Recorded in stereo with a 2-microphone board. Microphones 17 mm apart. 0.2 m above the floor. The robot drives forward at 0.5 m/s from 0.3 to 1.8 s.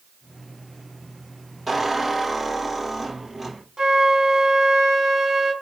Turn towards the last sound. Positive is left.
turn(degrees=-35)  # may be behind; listen again after turning